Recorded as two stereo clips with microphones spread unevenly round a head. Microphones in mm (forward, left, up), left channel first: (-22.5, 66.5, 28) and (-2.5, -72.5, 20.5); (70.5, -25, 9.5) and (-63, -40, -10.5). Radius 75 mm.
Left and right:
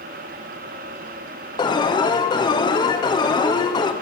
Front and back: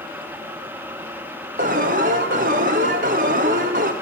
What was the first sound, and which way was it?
An alarm, 160° left.